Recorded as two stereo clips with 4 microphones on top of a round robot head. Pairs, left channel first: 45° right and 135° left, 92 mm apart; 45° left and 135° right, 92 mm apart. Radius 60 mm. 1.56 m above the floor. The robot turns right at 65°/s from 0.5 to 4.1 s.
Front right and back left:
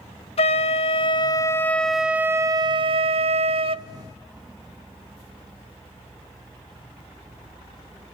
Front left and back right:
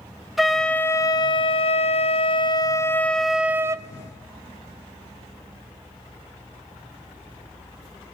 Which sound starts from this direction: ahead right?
A flute, at 0.4 s.